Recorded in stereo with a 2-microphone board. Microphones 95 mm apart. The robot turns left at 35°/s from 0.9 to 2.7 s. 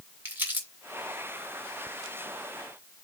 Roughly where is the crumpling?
Centre.